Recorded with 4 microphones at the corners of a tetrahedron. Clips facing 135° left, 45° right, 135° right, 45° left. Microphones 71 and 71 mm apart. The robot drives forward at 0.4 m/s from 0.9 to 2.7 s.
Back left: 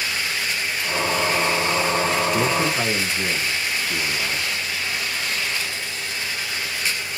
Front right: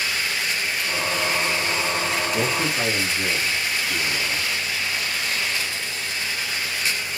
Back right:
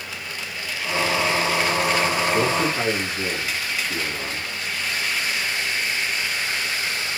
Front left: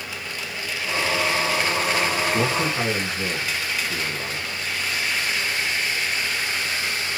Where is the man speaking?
110° left, 1.8 m; by 4.5 s 120° left, 1.8 m.